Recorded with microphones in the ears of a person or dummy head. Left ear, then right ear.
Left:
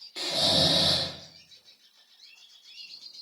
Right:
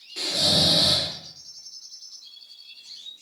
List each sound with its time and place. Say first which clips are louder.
0.2 s snoring: right 3 dB; 20° left (ahead or behind), 0.6 m